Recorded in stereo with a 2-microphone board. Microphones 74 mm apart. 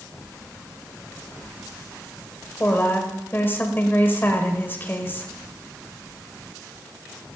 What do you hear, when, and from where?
2.6 s a woman speaking: 30° left (ahead or behind), 2.0 m